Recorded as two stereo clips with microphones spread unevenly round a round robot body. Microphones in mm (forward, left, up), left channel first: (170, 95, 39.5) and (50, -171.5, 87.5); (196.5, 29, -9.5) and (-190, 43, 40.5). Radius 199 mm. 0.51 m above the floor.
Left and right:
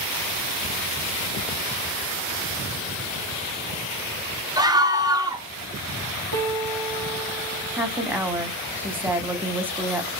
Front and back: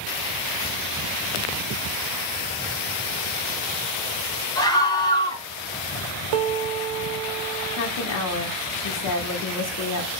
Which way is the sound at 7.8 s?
25° right.